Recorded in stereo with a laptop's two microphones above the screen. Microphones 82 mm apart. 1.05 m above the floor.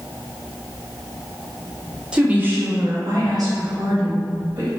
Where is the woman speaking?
10° right (ahead or behind), 0.9 m; by 4.7 s 65° right (ahead or behind), 1.7 m.